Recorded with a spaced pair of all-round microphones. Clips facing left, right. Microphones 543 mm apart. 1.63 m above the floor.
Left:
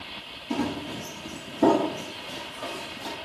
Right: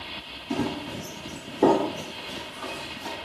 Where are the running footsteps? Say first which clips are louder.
Even; 5° right (ahead or behind), 1.8 m; by 3.1 s 60° left (ahead or behind), 3 m.